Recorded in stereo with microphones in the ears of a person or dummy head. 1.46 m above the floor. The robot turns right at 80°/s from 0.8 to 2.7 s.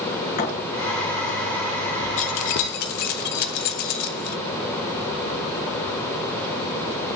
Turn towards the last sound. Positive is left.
turn(degrees=45)  # may be behind; listen again after turning